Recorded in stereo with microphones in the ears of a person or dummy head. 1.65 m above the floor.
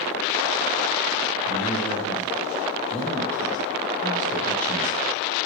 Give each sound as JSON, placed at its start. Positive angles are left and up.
{"t": 1.4, "sound": "a man speaking", "side_deg": 10, "distance_m": 1.0}